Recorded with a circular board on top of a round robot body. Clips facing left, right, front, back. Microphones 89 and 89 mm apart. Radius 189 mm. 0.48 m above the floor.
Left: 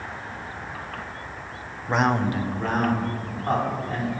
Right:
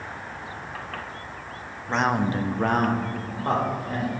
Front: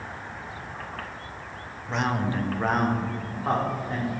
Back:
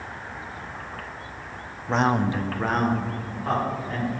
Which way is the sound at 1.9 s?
160° left.